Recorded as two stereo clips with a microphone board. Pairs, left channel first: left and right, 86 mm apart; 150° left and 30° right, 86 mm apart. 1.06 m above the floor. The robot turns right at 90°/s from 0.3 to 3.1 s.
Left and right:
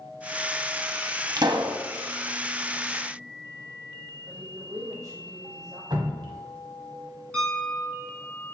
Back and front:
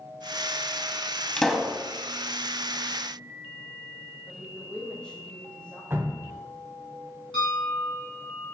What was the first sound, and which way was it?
A pop, 135° right.